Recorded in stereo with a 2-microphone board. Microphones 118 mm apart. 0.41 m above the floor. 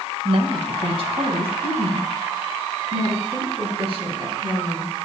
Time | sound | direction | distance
0.2 | a woman speaking | 55° right (ahead or behind) | 2 m